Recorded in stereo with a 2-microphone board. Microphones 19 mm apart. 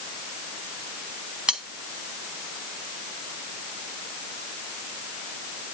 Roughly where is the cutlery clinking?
Right.